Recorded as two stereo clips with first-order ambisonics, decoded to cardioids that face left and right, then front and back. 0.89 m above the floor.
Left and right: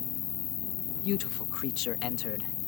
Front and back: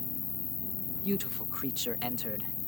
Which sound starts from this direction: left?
A man speaking, at 1.0 s.